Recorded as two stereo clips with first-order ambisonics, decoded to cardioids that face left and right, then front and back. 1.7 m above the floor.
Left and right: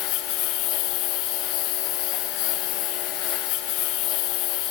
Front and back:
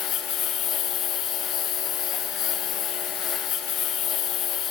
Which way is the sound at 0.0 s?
55° left.